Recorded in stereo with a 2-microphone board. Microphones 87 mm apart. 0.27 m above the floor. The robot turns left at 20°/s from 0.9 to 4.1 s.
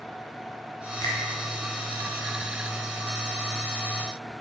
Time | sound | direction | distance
1.0 | a finger snap | 45° left (ahead or behind) | 1.9 m